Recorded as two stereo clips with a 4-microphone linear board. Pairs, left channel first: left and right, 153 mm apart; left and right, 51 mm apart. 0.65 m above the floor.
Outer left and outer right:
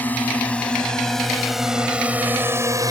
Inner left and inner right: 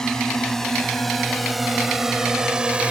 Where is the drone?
10° left (ahead or behind); by 2.9 s 25° right (ahead or behind).